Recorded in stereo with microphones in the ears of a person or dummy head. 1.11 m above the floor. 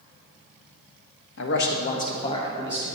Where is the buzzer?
No buzzer in this recording.